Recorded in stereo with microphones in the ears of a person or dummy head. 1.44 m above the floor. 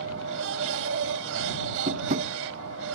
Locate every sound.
0.0 s a machine running: 70° right (ahead or behind)
1.9 s tapping: 45° right (ahead or behind)